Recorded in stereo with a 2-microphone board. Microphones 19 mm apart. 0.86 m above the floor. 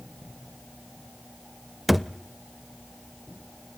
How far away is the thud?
About 0.6 m.